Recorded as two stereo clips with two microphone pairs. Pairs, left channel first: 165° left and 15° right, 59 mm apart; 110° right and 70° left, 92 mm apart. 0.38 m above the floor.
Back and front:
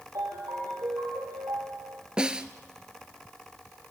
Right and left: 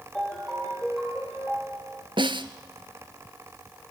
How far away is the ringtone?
About 8 m.